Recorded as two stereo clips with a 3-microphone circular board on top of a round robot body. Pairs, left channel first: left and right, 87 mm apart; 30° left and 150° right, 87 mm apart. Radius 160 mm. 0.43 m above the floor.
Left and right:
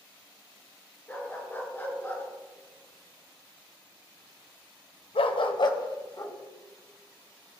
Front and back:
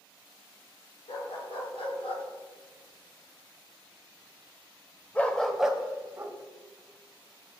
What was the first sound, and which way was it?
A dog barking, 20° left.